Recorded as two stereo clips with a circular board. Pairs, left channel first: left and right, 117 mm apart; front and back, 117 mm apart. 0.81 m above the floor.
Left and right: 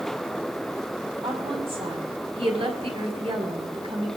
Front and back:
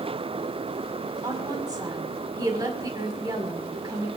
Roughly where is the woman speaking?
Behind right.